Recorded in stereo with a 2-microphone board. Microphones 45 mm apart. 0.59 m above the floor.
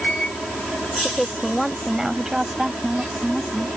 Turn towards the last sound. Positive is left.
turn(degrees=-25)  # may be behind; listen again after turning